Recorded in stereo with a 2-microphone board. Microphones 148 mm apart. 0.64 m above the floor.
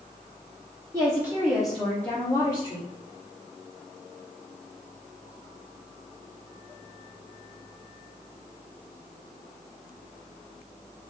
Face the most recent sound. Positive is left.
turn(degrees=30)  # may be behind; listen again after turning